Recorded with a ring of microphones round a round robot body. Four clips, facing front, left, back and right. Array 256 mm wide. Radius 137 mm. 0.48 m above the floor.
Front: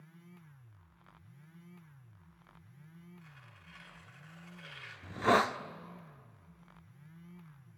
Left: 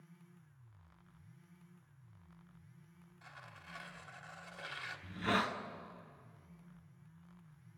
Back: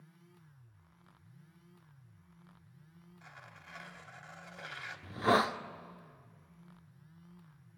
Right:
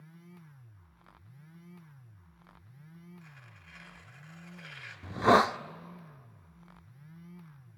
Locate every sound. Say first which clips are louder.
3.2 s tearing paper: left 1 dB, back 4 dB; 155° left, 1.2 m
5.0 s a hiss: right 13 dB, front 1 dB; 85° right, 0.6 m